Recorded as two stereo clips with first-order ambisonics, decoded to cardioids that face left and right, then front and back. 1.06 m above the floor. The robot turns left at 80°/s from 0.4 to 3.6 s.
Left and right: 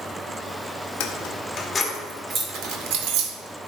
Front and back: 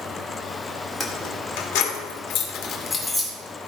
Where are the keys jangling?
80° left, 2.0 m; by 3.3 s 105° right, 2.0 m.